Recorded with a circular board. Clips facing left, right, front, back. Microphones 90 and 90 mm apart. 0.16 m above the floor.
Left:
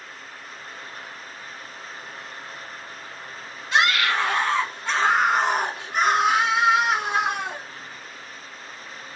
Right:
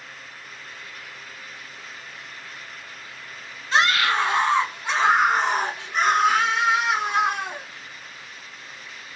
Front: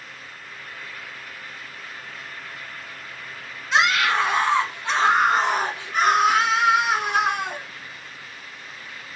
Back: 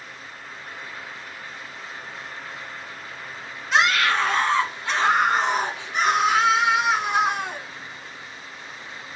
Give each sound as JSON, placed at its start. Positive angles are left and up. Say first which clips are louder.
{"t": 3.7, "sound": "a scream", "louder": "right 1 dB, even", "azimuth_deg": -90, "distance_m": 1.2}